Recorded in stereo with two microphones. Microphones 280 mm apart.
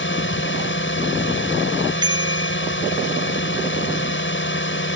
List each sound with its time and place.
0.0 s a drone: 45° left (ahead or behind)
2.0 s a bicycle bell: 15° right (ahead or behind)